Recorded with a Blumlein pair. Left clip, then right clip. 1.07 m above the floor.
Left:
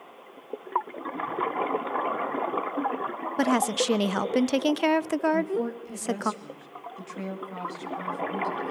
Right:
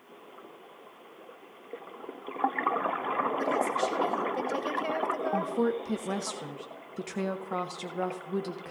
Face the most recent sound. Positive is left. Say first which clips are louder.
# left 1 dB
turn(degrees=-30)